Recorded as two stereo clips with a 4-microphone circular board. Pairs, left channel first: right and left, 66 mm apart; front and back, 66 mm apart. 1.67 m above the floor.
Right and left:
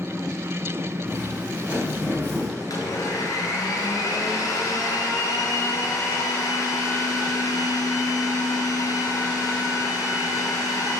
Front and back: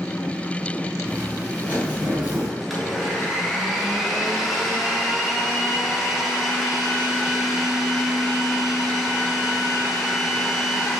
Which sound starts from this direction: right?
A blender, at 2.6 s.